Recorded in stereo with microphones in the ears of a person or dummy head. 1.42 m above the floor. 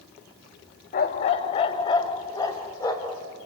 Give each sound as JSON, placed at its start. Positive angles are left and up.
{"t": 0.9, "sound": "a dog barking", "side_deg": 25, "distance_m": 0.9}